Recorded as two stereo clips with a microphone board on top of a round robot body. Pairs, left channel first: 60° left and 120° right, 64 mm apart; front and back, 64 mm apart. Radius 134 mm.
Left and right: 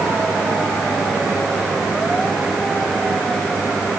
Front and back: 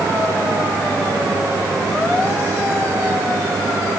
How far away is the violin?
I don't hear a violin.